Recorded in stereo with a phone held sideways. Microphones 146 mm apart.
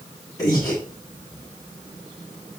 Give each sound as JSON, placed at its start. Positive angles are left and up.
{"t": 0.4, "sound": "breathing", "side_deg": 25, "distance_m": 8.0}